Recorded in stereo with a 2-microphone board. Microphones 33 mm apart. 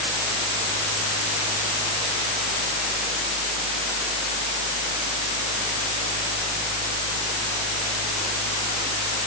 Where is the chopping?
I don't hear chopping.